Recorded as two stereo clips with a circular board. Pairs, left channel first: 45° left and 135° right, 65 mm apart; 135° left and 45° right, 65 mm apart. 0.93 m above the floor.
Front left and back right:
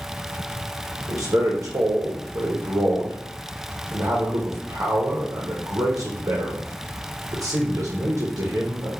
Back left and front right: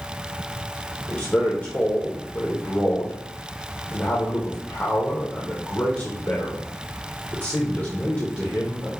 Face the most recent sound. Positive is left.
turn(degrees=-165)